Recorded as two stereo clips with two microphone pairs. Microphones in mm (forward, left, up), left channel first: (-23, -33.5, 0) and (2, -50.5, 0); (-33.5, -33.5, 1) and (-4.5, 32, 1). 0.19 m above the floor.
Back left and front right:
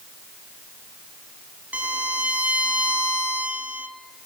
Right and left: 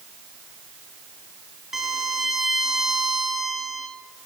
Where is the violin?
20° right, 0.7 m.